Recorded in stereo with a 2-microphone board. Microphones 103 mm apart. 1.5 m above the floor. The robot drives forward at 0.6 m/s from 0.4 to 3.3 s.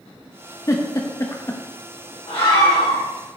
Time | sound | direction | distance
0.7 | a giggle | 30° left (ahead or behind) | 0.8 m
2.3 | a scream | 85° left | 2 m